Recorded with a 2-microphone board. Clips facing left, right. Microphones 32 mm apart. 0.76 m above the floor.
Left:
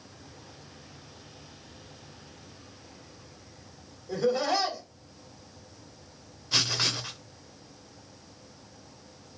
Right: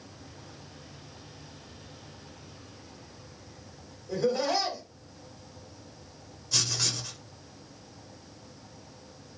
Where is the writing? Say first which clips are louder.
Left 3 dB; 30° left (ahead or behind), 0.5 m.